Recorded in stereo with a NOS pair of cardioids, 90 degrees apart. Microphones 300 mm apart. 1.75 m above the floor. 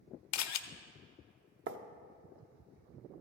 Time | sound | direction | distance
0.3 | a camera shutter | 70° left | 0.6 m
1.7 | writing | 45° right | 0.7 m